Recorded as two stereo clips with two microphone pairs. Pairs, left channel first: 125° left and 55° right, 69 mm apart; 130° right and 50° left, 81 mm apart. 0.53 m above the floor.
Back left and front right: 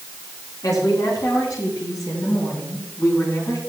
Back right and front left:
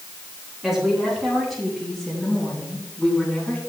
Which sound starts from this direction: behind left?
A woman speaking, at 0.6 s.